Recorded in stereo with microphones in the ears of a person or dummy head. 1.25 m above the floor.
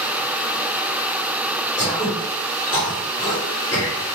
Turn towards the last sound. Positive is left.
turn(degrees=20)  # may be behind; listen again after turning